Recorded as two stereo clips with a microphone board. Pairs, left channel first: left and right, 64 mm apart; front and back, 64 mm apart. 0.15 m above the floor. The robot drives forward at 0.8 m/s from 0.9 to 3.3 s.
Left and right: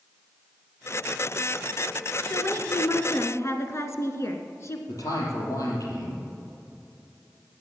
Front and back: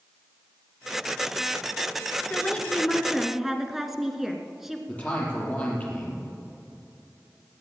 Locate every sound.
2.3 s a woman speaking: 60° left, 1.7 m; by 4.8 s 95° left, 1.5 m
4.9 s a man speaking: 65° left, 5 m